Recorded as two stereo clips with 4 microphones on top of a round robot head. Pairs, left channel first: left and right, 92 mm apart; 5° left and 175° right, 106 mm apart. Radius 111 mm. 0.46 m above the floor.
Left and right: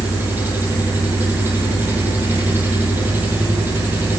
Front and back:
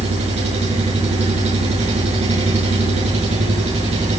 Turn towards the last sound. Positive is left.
turn(degrees=-160)